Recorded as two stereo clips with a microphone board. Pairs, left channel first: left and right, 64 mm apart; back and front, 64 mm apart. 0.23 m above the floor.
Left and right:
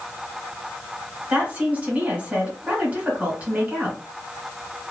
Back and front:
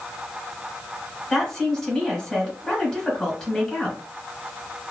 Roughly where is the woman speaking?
Right.